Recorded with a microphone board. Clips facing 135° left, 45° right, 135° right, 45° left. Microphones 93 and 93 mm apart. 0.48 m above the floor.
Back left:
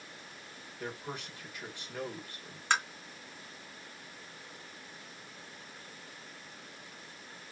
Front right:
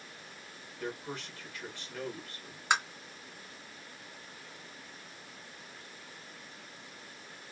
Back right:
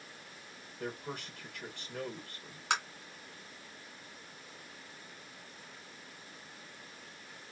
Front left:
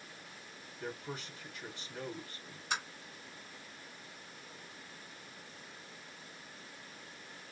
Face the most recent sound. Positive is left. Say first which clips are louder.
# front right 1 dB, back right 5 dB
turn(degrees=-125)